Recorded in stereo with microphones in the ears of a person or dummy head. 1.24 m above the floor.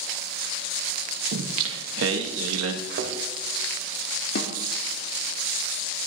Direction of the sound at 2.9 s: 60° right (ahead or behind).